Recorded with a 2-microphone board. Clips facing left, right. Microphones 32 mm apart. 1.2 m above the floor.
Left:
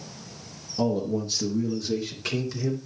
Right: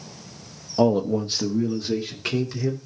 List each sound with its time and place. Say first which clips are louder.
0.8 s a man speaking: right 6 dB; 80° right, 0.9 m; by 2.8 s 15° right (ahead or behind), 3 m